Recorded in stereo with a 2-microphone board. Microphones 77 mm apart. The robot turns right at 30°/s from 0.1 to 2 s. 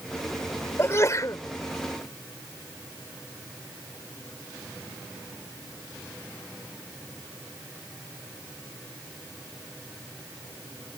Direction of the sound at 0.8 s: 35° left (ahead or behind).